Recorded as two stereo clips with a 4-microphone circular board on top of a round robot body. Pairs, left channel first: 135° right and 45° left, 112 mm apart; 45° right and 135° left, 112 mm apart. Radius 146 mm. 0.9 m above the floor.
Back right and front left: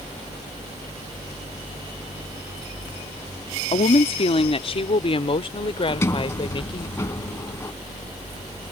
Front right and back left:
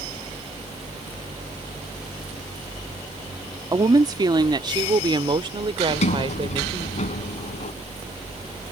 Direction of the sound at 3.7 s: 165° right.